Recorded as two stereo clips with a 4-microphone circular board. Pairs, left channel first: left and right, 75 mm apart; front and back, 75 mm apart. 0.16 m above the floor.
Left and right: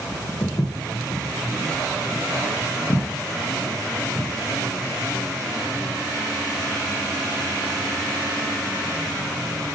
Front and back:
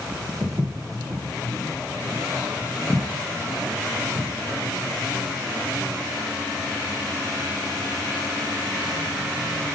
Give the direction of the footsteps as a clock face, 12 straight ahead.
8 o'clock.